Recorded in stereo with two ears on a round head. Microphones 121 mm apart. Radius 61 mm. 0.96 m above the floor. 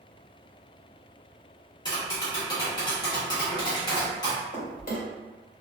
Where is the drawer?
70° left (ahead or behind), 1.4 m.